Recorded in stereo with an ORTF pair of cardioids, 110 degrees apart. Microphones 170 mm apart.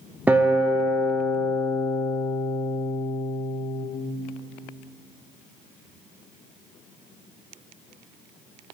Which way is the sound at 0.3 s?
10° right.